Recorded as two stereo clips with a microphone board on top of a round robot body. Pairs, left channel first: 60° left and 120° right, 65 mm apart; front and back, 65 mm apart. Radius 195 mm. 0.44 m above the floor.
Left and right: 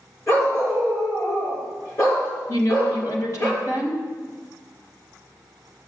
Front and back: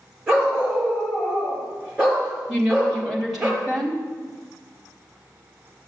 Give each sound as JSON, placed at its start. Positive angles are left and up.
{"t": 0.3, "sound": "a dog barking", "azimuth_deg": 100, "distance_m": 6.0}
{"t": 2.5, "sound": "a woman speaking", "azimuth_deg": 95, "distance_m": 3.5}